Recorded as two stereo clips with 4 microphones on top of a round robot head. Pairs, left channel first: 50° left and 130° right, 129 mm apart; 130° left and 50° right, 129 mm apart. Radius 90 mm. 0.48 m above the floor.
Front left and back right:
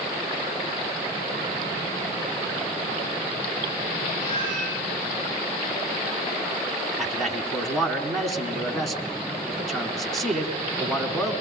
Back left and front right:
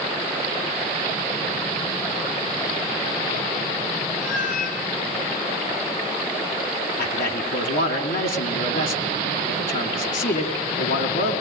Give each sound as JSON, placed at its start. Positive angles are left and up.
{"t": 4.2, "sound": "a cat meowing", "azimuth_deg": 110, "distance_m": 4.5}
{"t": 7.0, "sound": "a man speaking", "azimuth_deg": 140, "distance_m": 4.5}